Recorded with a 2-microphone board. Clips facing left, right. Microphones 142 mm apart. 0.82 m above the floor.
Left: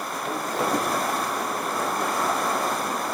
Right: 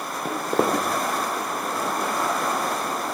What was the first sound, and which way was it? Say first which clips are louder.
Footsteps: right 4 dB; 60° right (ahead or behind).